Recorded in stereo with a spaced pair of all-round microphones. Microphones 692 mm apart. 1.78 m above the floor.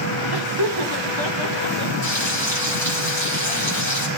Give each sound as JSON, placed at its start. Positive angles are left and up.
{"t": 0.3, "sound": "laughter", "side_deg": -35, "distance_m": 2.0}
{"t": 2.0, "sound": "frying", "side_deg": -40, "distance_m": 6.0}